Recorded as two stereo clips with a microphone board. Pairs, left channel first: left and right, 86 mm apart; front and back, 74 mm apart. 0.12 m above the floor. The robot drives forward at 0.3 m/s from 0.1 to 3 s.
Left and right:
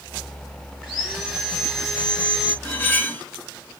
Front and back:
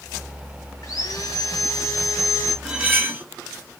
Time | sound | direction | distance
0.8 | sawing | 5° left | 2 m
2.6 | cutlery clinking | 125° left | 0.7 m